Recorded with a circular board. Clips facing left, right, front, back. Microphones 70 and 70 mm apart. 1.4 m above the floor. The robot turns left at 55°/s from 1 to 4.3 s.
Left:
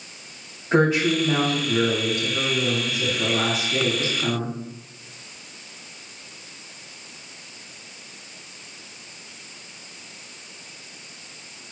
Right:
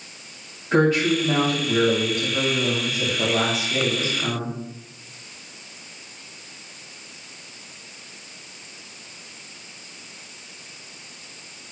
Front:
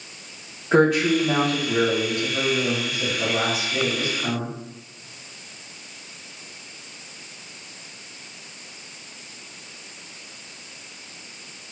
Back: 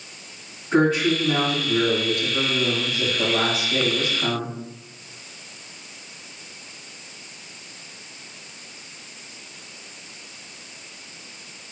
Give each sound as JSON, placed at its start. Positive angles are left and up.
{"t": 0.7, "sound": "a woman speaking", "azimuth_deg": 15, "distance_m": 2.5}